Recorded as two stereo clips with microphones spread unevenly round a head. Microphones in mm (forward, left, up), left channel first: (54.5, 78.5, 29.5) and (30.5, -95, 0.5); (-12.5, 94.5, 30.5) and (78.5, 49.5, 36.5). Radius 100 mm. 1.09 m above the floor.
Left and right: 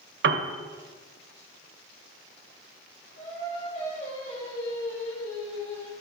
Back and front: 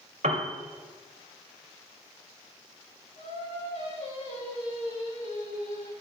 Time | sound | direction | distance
0.2 | a piano | 75° right | 1.5 m
3.2 | singing | 145° left | 5 m